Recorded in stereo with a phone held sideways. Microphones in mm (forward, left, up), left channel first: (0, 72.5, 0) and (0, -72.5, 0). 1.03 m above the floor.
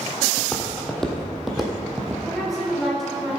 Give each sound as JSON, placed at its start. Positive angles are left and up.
{"t": 0.4, "sound": "footsteps", "side_deg": 10, "distance_m": 2.0}
{"t": 2.2, "sound": "a woman speaking", "side_deg": 0, "distance_m": 4.5}